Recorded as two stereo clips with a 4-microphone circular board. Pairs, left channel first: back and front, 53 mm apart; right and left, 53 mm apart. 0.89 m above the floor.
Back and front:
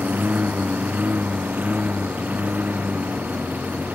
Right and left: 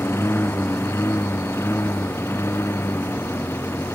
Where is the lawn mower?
55° right.